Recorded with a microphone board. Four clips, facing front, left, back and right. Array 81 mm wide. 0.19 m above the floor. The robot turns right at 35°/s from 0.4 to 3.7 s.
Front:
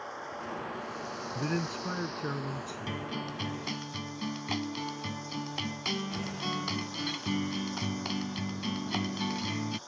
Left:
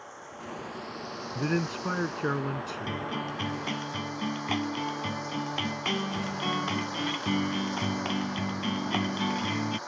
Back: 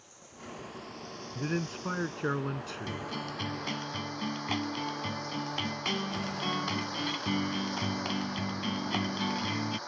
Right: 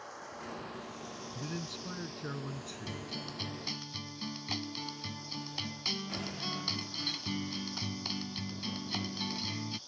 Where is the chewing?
I don't hear chewing.